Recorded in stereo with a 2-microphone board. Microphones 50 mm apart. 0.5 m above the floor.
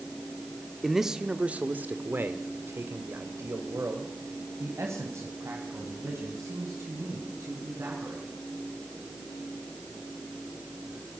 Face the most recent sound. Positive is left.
turn(degrees=-70)  # may be behind; listen again after turning